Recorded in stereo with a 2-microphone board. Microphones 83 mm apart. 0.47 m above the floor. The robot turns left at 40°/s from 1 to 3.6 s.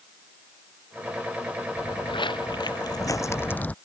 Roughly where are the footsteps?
Left.